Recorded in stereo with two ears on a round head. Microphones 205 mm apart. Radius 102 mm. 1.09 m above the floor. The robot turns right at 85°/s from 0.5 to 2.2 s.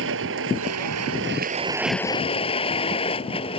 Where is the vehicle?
120° right; by 3.6 s 25° left.